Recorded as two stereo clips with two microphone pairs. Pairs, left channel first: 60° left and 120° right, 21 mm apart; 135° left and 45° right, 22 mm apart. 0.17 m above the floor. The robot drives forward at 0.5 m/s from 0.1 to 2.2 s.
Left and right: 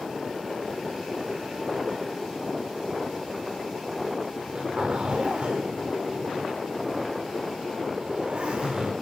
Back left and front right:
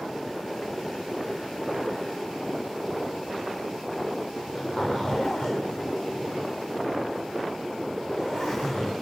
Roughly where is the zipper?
Behind.